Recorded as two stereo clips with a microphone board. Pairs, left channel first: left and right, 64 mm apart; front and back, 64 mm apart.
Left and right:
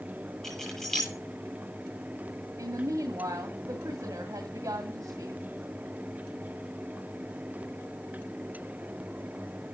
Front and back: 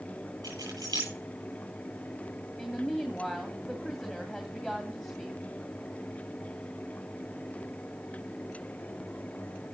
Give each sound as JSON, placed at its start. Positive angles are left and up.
{"t": 0.4, "sound": "keys jangling", "azimuth_deg": 175, "distance_m": 7.5}
{"t": 2.6, "sound": "a woman speaking", "azimuth_deg": -85, "distance_m": 2.0}